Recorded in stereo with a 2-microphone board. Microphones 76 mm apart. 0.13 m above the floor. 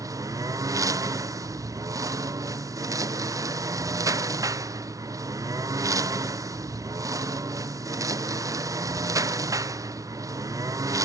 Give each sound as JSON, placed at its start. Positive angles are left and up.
{"t": 0.0, "sound": "a lawn mower", "side_deg": -45}